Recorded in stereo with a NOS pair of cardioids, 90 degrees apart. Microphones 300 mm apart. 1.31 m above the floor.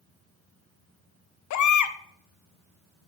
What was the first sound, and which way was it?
A baby crying, 65° left.